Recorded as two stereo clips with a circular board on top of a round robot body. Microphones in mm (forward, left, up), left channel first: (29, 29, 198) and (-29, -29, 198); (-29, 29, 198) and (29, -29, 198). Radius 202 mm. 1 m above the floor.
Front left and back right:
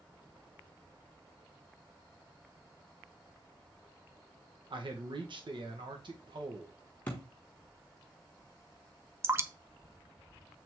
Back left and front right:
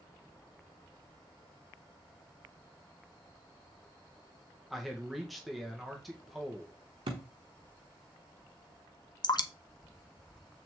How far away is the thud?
About 0.7 m.